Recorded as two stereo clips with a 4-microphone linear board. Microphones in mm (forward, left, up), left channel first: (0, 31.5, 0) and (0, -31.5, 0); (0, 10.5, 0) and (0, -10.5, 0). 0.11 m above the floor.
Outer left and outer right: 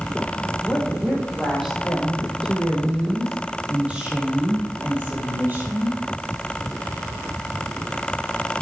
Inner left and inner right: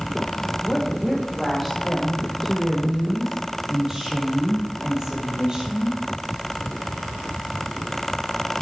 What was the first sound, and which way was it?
A woman speaking, 5° right (ahead or behind).